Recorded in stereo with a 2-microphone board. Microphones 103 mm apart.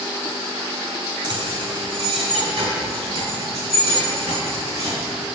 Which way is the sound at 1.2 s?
45° right (ahead or behind).